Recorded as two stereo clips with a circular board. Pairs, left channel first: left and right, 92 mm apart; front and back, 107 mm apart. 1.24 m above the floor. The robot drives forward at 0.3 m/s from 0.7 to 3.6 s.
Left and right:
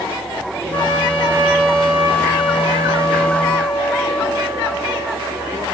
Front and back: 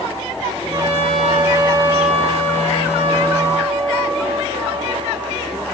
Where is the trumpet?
165° right, 5 m.